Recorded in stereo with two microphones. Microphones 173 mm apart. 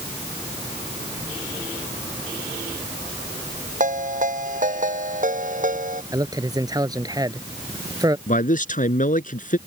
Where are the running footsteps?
I don't hear running footsteps.